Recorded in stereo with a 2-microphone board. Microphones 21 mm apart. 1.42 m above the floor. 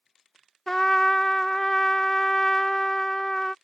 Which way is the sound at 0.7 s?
30° left (ahead or behind).